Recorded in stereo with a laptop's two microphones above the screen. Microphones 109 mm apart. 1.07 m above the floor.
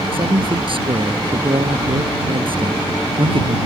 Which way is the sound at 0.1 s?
55° right (ahead or behind).